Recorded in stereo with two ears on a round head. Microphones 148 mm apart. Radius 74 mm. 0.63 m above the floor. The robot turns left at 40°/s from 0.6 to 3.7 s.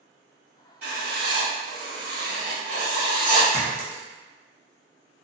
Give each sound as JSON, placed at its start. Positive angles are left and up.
{"t": 0.8, "sound": "writing", "azimuth_deg": -70, "distance_m": 1.9}
{"t": 3.5, "sound": "a clink", "side_deg": -15, "distance_m": 0.7}